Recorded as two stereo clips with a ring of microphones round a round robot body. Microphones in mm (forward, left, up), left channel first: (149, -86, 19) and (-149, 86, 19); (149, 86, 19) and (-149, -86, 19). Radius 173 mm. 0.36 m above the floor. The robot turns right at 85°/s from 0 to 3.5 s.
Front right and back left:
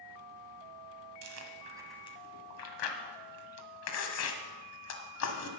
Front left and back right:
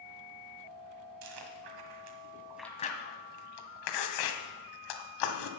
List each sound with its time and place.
1.2 s chewing: straight behind, 1.5 m; by 5.5 s 15° left, 1.5 m